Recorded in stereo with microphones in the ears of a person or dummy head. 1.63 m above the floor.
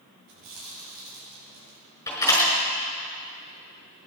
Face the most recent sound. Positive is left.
turn(degrees=20)  # may be behind; listen again after turning